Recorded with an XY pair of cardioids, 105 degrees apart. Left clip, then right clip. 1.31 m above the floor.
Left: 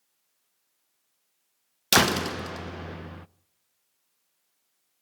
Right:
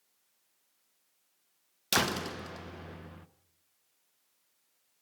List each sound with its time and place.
1.9 s a door slam: 55° left, 0.5 m